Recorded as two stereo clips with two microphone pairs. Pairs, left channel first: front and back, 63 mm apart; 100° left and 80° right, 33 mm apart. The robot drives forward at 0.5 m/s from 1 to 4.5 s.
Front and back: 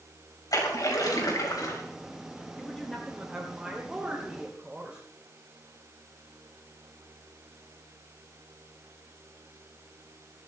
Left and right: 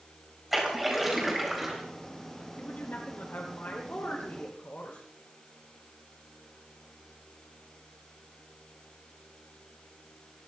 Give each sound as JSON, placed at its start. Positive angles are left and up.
{"t": 0.5, "sound": "a splash", "azimuth_deg": 10, "distance_m": 4.0}
{"t": 2.6, "sound": "a woman speaking", "azimuth_deg": 85, "distance_m": 2.5}